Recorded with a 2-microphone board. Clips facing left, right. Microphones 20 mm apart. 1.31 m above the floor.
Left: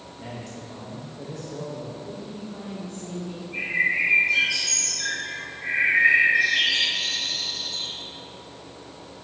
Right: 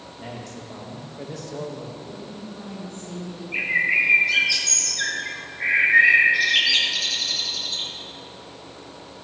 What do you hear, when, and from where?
0.2 s a man speaking: 15° right (ahead or behind), 1.9 m; by 1.9 s 65° right (ahead or behind), 1.7 m
2.0 s a woman speaking: 60° left (ahead or behind), 2.5 m
3.5 s a bird: 75° right (ahead or behind), 1.6 m